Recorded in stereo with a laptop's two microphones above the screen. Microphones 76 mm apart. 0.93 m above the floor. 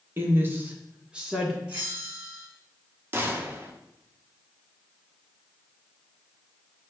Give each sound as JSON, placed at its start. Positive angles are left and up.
{"t": 0.2, "sound": "a woman speaking", "side_deg": -30, "distance_m": 0.7}
{"t": 1.7, "sound": "a bell", "side_deg": -15, "distance_m": 1.3}
{"t": 3.1, "sound": "a gunshot", "side_deg": -30, "distance_m": 0.5}